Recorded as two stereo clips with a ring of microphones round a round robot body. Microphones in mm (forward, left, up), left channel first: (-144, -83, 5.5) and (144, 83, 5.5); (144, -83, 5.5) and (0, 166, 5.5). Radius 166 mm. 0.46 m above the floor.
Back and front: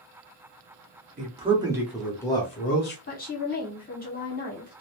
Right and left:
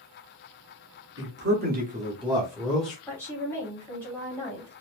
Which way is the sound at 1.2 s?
90° left.